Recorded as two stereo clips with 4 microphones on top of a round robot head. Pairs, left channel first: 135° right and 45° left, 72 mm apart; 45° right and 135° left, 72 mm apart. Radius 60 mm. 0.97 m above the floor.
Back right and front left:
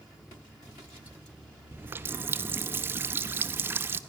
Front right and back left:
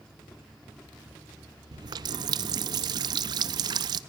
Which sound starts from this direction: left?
A running tap, at 1.7 s.